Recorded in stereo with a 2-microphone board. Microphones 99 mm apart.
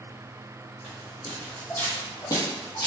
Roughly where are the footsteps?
Centre.